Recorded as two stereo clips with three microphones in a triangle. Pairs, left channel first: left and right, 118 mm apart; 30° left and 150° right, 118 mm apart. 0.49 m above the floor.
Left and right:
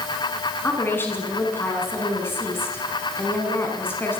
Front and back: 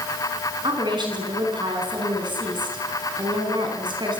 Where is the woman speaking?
160° left, 5.5 m.